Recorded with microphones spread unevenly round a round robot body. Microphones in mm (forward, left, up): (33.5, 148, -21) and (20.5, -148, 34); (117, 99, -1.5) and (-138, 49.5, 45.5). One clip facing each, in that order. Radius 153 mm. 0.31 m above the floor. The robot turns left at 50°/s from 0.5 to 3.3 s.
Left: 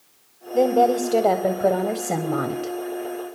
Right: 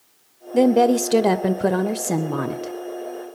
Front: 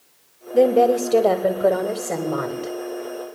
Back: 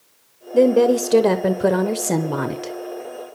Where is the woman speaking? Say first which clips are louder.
Right 3 dB, back 1 dB; 80° right, 1.1 m; by 2.7 s 170° left, 1.1 m.